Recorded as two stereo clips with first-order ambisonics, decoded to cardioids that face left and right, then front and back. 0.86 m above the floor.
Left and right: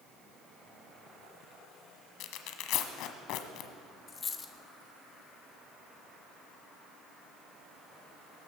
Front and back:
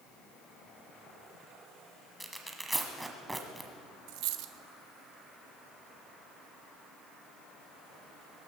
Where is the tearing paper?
95° left, 1.1 m.